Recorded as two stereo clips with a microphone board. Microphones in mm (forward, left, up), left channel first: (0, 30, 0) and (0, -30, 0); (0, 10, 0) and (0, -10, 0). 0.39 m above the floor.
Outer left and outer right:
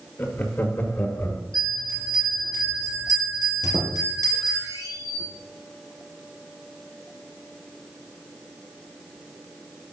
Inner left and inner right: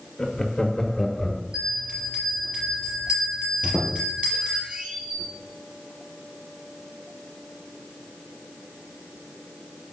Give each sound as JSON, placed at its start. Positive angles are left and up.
{"t": 0.2, "sound": "laughter", "side_deg": 35, "distance_m": 1.2}
{"t": 1.5, "sound": "a bell", "side_deg": -70, "distance_m": 4.5}
{"t": 3.6, "sound": "a squeak", "side_deg": -80, "distance_m": 2.5}